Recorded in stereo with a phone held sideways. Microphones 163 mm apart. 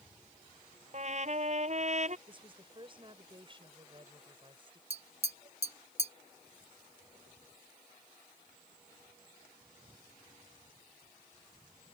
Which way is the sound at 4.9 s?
40° right (ahead or behind).